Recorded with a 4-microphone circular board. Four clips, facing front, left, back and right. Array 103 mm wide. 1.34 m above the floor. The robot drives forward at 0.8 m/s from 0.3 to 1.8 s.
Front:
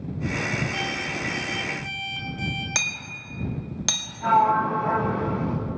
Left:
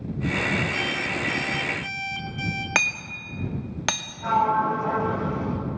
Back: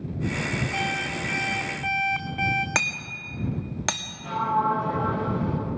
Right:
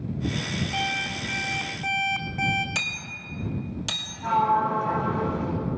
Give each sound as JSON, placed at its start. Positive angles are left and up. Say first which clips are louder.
{"t": 0.7, "sound": "an alarm clock", "louder": "left 1 dB, back 1 dB", "azimuth_deg": -125, "distance_m": 1.4}
{"t": 2.8, "sound": "hammering", "louder": "left 6 dB, back 3 dB", "azimuth_deg": 120, "distance_m": 1.9}
{"t": 4.2, "sound": "a sliding door", "louder": "left 1 dB, front 5 dB", "azimuth_deg": 30, "distance_m": 8.5}